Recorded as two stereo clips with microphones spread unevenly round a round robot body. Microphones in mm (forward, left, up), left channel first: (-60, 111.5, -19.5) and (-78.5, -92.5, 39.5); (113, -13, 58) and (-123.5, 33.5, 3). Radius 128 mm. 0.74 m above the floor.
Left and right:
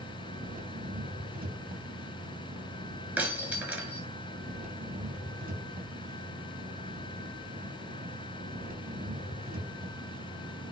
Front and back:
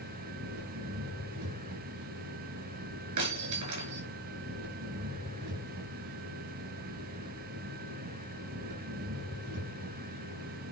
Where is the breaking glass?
175° right, 6.5 m.